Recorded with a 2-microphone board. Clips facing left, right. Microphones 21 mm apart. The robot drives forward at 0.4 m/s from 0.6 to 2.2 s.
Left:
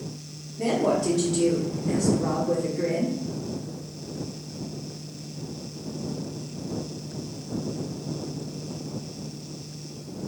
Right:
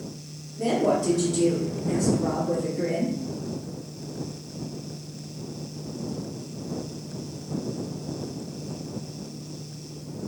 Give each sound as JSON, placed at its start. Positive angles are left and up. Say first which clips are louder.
{"t": 0.6, "sound": "a woman speaking", "louder": "even", "side_deg": 30, "distance_m": 1.5}